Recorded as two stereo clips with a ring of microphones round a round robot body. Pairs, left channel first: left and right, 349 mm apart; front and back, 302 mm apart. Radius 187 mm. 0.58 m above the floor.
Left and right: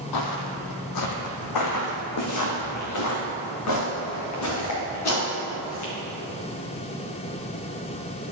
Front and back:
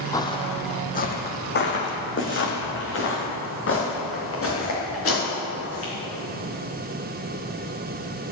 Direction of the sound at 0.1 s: 75° left.